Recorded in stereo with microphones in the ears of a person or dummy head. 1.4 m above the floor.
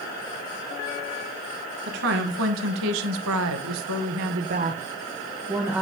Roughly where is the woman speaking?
Right.